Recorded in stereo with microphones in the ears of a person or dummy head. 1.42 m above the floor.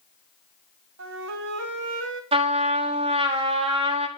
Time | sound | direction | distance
1.0 | a flute | 60° right (ahead or behind) | 0.8 m
2.3 | a trumpet | 30° right (ahead or behind) | 0.8 m